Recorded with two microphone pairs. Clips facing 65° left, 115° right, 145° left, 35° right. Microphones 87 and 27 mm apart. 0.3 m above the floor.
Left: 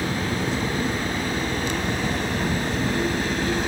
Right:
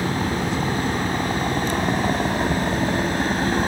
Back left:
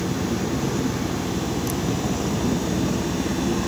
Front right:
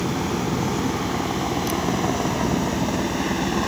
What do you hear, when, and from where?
0.0 s a helicopter: 75° right; by 3.7 s 85° right